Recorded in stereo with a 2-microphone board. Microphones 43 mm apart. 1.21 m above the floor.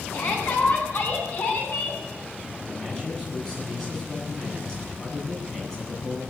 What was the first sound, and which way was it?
A shout, 70° left (ahead or behind).